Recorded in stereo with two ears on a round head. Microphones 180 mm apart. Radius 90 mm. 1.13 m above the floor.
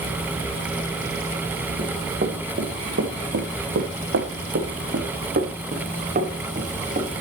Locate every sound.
1.8 s running footsteps: 35° right (ahead or behind), 3.5 m; by 7.1 s 30° right (ahead or behind), 5 m